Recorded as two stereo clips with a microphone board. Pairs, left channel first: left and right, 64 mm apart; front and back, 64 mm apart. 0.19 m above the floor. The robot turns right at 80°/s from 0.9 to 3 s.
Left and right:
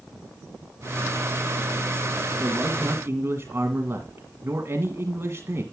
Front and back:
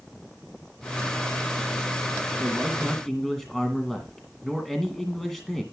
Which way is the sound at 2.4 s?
130° right.